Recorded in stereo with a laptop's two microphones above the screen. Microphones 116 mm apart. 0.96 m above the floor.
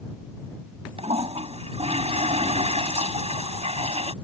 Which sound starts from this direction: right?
A toilet flushing, at 1.0 s.